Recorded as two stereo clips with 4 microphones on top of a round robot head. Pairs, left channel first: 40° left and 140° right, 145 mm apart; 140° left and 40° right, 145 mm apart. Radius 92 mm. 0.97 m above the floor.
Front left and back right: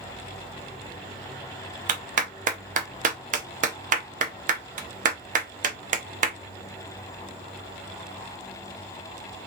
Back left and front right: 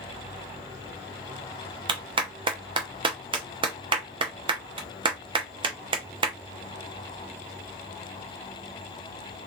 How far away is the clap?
About 0.7 m.